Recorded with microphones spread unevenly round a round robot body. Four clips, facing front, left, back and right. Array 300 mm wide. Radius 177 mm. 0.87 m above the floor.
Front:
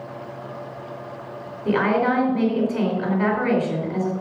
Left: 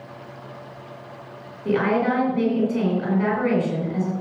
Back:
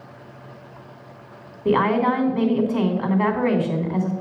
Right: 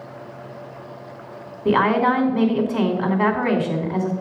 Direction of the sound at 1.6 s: 90° right.